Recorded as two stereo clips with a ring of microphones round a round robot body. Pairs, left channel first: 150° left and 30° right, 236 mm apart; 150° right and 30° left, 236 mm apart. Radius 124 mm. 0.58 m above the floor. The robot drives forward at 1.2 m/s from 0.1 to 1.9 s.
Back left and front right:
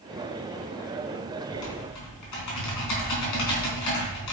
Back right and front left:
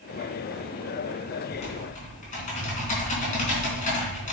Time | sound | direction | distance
1.5 | typing on a keyboard | 145° left | 3.5 m